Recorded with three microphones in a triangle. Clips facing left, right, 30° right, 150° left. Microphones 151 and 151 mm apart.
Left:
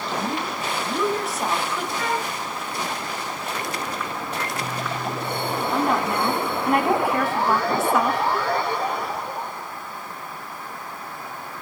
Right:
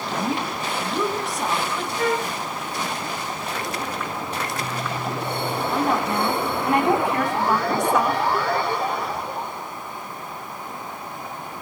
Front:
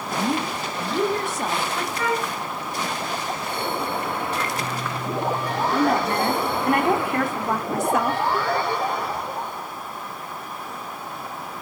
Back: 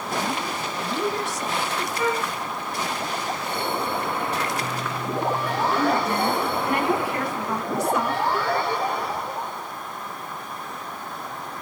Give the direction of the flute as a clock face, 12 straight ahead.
5 o'clock.